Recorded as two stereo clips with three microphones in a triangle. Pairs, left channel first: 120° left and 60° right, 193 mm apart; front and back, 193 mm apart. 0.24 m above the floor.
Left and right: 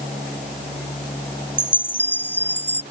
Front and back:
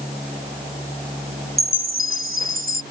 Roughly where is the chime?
Behind.